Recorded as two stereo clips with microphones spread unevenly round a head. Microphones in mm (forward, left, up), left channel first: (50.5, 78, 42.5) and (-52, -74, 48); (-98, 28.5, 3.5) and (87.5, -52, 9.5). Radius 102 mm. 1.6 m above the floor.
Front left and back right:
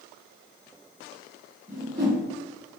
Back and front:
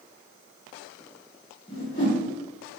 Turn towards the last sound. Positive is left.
turn(degrees=-145)